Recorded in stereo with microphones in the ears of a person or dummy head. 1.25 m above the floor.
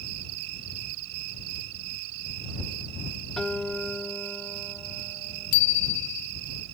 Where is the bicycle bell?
80° left.